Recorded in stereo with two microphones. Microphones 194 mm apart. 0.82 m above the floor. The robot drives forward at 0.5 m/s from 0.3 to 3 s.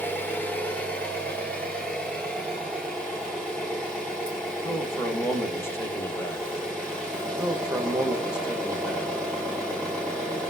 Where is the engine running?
10° left (ahead or behind), 1.1 m; by 10.5 s 5° left (ahead or behind), 2.5 m.